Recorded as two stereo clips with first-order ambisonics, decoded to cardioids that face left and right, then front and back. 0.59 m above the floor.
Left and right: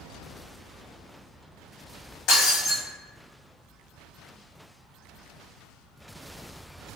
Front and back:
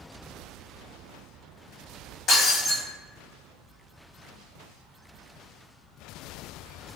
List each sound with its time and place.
2.3 s breaking glass: 60° left, 1.5 m